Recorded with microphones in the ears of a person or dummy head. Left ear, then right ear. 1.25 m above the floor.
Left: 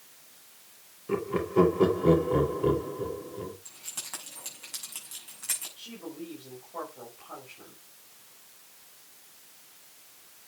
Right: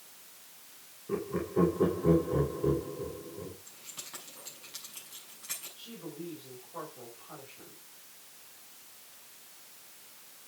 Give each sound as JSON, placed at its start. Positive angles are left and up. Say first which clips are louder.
{"t": 1.1, "sound": "laughter", "louder": "left 5 dB", "side_deg": 55, "distance_m": 2.5}
{"t": 3.6, "sound": "keys jangling", "louder": "left 6 dB", "side_deg": 35, "distance_m": 6.5}
{"t": 5.8, "sound": "a woman speaking", "louder": "left 2 dB", "side_deg": 15, "distance_m": 5.5}